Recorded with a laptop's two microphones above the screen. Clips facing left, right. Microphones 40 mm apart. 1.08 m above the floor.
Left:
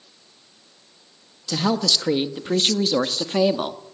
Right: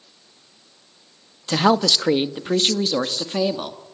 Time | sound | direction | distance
1.5 | a woman speaking | 40° right (ahead or behind) | 1.2 m